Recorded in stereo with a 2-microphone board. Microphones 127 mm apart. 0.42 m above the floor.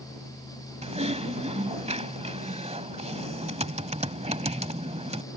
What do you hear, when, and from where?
0.8 s typing on a keyboard: 60° right (ahead or behind)